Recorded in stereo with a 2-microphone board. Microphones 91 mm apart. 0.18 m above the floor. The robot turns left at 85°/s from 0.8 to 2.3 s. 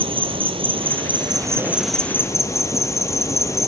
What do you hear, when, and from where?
0.0 s an insect: 85° right, 0.9 m; by 3.7 s 145° left, 0.9 m